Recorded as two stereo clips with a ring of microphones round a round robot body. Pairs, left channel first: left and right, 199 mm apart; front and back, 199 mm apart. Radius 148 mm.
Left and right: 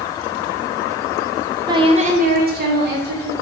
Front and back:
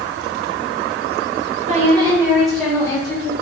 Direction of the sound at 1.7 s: 155° right.